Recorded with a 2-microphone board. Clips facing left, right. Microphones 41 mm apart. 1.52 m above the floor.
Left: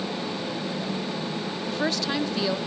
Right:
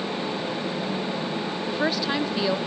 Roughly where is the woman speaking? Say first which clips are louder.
Right 2 dB; centre.